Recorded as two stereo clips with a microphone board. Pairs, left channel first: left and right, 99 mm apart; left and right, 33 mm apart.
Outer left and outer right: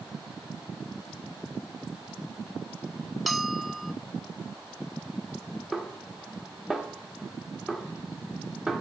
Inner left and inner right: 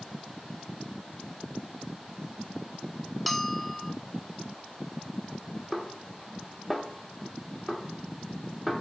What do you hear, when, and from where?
3.3 s a bell: centre (ahead or behind), 0.6 m
5.7 s a snare drum: 5° right (ahead or behind), 1.2 m